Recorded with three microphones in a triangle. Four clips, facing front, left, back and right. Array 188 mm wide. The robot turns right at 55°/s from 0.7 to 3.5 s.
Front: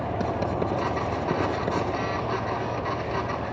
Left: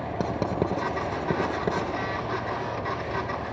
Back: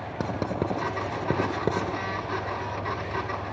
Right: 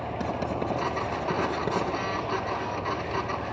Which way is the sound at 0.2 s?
125° left.